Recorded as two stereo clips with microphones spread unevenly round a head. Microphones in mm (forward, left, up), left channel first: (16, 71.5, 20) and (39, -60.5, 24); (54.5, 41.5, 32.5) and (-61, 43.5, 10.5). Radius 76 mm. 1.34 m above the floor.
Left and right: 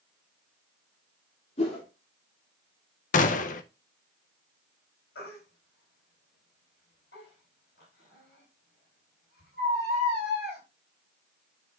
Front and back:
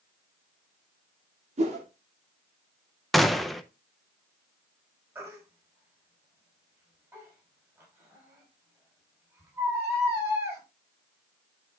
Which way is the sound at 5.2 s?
110° left.